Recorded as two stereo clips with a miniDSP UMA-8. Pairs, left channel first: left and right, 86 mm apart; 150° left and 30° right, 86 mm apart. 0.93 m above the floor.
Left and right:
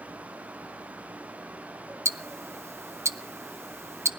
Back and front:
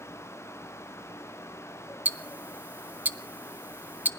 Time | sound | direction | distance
2.0 | ticking | 80° right | 0.6 m